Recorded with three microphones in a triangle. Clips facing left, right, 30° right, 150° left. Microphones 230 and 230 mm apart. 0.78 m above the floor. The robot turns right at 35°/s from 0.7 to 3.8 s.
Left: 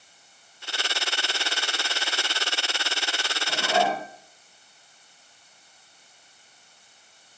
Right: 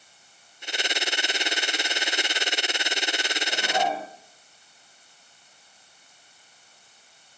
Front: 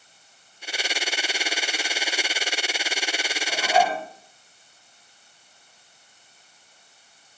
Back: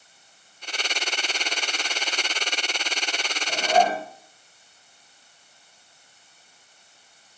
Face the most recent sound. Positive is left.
turn(degrees=100)